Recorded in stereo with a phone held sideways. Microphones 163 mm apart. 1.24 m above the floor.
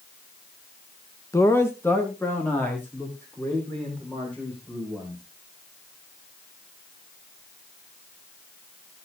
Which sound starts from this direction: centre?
A man speaking, at 1.3 s.